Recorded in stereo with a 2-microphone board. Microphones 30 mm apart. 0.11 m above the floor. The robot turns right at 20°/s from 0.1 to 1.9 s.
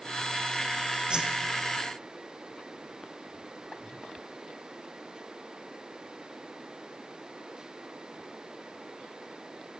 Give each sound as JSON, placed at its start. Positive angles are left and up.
{"t": 1.1, "sound": "a whoosh", "side_deg": -25, "distance_m": 2.0}